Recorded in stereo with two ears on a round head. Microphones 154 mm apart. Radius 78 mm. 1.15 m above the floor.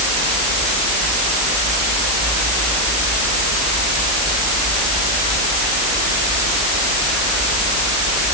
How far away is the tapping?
No tapping in this recording.